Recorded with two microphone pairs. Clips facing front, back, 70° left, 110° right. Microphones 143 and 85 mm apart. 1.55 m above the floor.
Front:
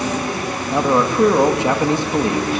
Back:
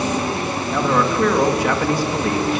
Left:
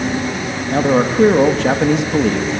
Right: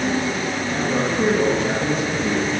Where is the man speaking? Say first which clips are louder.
Front 3 dB, left 9 dB; 70° left, 3 m.